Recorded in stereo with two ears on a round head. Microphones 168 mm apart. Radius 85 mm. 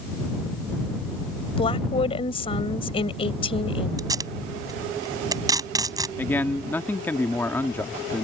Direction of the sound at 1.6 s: 30° left (ahead or behind).